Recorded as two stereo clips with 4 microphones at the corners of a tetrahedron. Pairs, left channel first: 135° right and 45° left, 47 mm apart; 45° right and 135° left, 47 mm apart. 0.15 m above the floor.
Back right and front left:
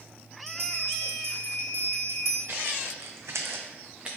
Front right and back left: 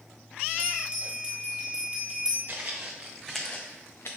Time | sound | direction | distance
0.5 | a bell | 70° left | 1.1 m
2.5 | footsteps | 85° left | 1.2 m